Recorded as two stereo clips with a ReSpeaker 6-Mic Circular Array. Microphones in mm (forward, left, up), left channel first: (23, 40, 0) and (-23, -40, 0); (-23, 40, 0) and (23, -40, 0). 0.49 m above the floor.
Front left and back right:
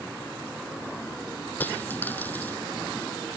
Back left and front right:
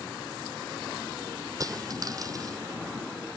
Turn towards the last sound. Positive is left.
turn(degrees=-10)